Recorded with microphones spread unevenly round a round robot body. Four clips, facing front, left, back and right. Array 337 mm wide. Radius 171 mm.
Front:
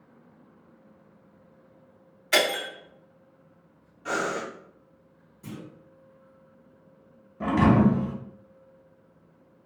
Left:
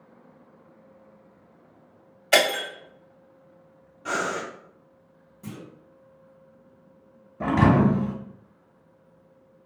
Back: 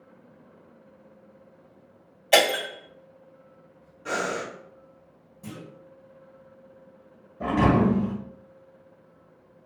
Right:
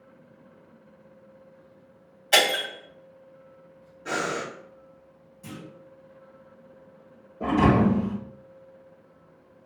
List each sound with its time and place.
2.3 s breaking glass: 145° left, 1.8 m
4.0 s breathing: 110° left, 1.9 m
5.4 s a clunk: 145° left, 1.9 m
7.4 s a thud: 85° left, 1.4 m